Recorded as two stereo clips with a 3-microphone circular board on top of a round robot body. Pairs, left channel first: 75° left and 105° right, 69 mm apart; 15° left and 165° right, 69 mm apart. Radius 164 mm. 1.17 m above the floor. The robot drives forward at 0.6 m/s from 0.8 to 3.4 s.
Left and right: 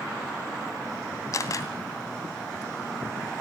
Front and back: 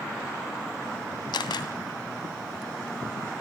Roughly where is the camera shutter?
Ahead left.